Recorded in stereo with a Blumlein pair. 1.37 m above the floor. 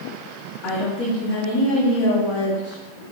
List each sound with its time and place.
0.6 s a woman speaking: 40° left, 1.6 m